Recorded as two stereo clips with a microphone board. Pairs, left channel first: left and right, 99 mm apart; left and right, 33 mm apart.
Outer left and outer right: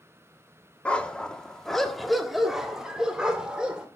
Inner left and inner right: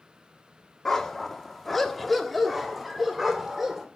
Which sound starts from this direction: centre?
A dog barking, at 0.8 s.